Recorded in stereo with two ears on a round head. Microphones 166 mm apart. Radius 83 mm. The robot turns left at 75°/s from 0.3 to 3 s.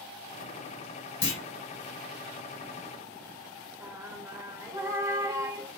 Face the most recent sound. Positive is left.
turn(degrees=-15)  # may be behind; listen again after turning